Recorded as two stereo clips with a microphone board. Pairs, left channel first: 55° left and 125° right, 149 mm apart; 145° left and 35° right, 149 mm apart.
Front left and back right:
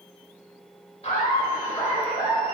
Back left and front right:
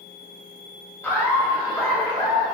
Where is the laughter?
80° left, 1.3 m; by 2.5 s 145° left, 1.4 m.